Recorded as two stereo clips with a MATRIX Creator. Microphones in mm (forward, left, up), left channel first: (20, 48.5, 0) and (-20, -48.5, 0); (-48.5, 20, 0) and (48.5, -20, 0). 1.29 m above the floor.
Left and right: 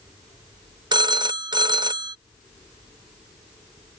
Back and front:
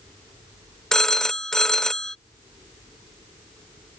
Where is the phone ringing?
120° right.